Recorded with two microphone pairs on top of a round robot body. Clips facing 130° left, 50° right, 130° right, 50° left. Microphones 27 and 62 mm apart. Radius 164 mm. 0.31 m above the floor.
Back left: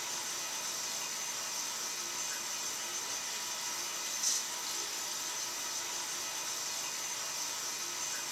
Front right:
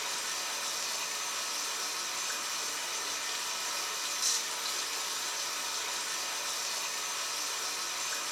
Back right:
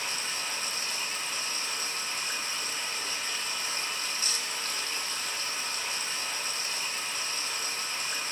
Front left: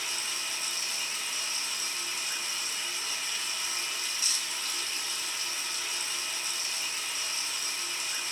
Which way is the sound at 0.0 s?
80° right.